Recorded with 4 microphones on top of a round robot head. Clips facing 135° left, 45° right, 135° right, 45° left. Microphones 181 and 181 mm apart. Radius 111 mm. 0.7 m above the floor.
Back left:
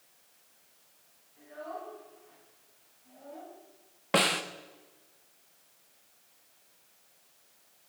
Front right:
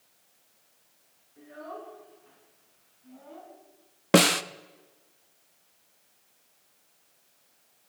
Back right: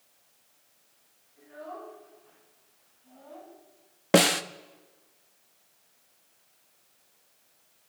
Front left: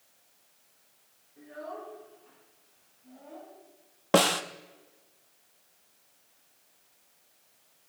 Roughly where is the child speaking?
Ahead.